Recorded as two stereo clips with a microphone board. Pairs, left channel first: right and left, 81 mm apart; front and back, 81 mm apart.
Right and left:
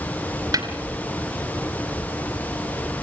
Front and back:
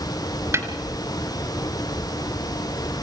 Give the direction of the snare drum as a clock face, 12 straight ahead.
8 o'clock.